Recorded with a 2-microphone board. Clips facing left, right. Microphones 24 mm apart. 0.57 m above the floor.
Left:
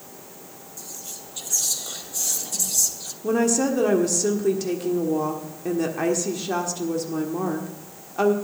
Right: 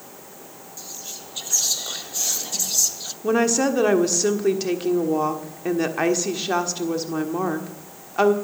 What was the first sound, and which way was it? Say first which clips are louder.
Whispering: right 2 dB; 30° right (ahead or behind).